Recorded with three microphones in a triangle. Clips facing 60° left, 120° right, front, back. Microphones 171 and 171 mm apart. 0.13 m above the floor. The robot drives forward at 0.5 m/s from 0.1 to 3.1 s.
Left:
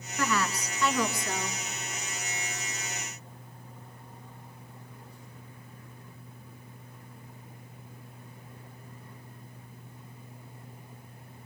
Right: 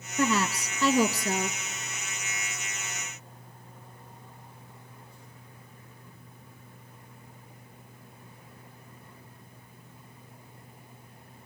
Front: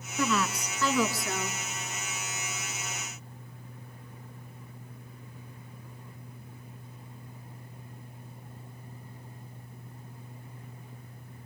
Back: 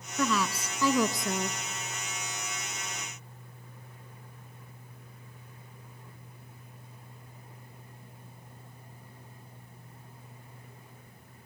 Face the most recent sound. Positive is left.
turn(degrees=-155)